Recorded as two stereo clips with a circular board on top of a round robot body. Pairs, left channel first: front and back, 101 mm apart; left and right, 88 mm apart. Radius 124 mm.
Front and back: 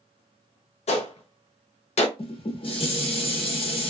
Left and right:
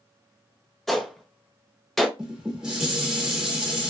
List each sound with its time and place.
0.9 s a gunshot: straight ahead, 0.6 m
2.2 s dishes clattering: 10° right, 1.2 m